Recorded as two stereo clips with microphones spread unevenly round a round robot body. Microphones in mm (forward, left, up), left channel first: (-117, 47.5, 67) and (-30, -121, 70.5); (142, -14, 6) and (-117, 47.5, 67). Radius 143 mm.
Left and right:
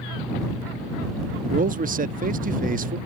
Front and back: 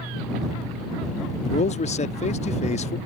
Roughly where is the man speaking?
Ahead right.